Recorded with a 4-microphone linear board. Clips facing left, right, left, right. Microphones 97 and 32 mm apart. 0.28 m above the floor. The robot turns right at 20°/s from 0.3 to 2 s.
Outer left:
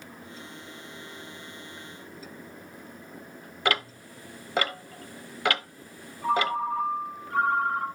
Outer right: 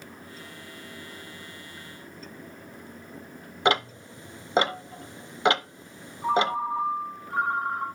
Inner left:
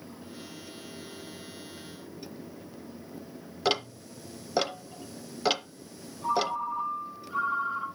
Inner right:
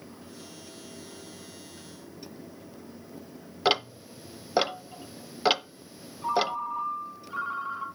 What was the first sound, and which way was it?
Ticking, 20° right (ahead or behind).